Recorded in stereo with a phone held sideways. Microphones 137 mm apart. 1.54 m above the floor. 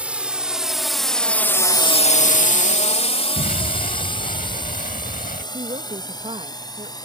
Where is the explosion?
85° left.